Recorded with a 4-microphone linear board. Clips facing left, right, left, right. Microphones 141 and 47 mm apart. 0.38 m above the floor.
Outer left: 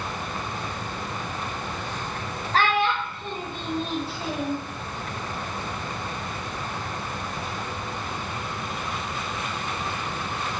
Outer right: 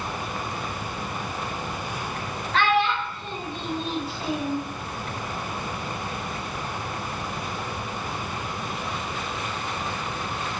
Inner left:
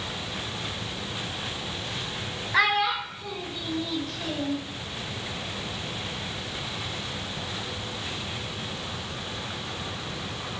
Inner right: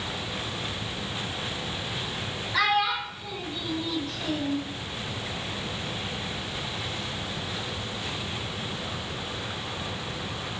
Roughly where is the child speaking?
Left.